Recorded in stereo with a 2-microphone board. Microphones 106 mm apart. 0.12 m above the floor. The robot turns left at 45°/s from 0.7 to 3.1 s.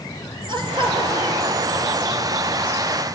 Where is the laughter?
55° right, 2.5 m; by 2.3 s 130° right, 2.5 m.